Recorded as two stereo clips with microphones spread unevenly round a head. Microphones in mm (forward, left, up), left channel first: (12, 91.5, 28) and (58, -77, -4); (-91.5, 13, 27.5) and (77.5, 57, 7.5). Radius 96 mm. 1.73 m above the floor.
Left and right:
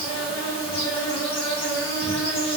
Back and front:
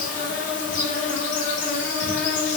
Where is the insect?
160° left, 0.9 m.